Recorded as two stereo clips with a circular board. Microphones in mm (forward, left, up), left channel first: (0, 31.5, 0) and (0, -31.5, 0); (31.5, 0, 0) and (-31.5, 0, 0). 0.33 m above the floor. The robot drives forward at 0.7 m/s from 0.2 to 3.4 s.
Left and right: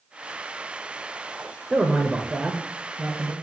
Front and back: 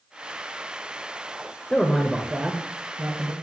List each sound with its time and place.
1.7 s a man speaking: 35° right, 0.9 m; by 3.3 s 170° right, 1.2 m